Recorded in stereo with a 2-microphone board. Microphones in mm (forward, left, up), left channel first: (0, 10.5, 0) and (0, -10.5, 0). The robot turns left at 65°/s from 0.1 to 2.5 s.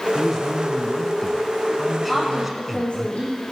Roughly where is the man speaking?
Centre.